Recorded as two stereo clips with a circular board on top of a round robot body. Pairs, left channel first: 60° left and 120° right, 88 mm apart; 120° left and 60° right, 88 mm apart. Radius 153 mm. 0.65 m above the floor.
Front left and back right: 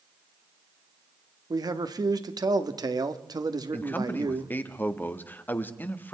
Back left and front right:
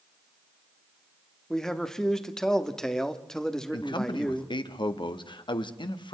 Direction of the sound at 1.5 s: 155° right.